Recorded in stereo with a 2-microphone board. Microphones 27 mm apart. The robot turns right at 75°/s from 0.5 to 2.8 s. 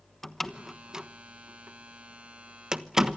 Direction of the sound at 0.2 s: 10° left (ahead or behind).